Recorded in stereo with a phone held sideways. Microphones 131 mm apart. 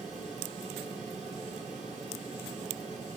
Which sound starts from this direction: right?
A fan, at 0.0 s.